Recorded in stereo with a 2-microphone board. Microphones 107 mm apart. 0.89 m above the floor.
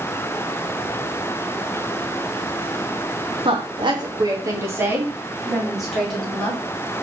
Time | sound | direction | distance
3.5 | a woman speaking | 60° right (ahead or behind) | 1.6 m